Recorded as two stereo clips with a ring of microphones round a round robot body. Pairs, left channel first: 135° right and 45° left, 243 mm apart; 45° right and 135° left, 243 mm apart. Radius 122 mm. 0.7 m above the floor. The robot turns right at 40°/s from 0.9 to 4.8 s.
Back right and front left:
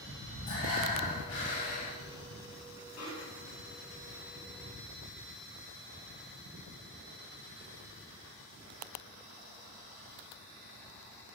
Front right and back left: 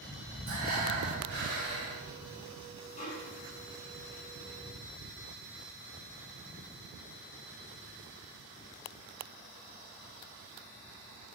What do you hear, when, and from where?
0.5 s breathing: 165° left, 5 m; by 2.0 s 150° right, 5 m
3.0 s a snare drum: 110° right, 4.5 m; by 3.8 s 75° right, 4.5 m